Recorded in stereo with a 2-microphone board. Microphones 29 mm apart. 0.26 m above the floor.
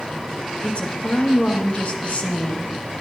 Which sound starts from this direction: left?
A woman speaking, at 0.6 s.